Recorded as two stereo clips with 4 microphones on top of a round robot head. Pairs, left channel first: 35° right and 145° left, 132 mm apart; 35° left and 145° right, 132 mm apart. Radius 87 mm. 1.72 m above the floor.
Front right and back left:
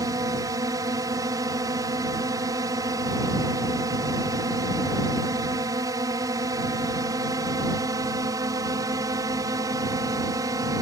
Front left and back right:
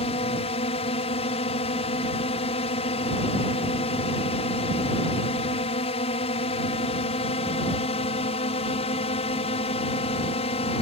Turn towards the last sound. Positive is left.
turn(degrees=80)